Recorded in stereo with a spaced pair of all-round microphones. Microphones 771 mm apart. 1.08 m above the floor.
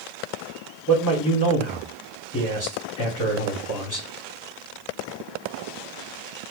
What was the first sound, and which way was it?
A man speaking, 25° left (ahead or behind).